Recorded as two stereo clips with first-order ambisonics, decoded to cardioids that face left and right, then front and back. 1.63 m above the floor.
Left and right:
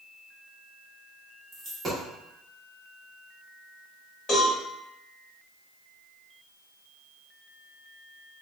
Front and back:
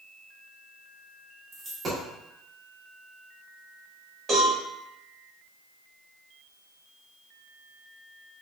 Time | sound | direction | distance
1.5 | a dropped coin | 140° right | 1.2 m
4.3 | a cowbell | 130° left | 1.5 m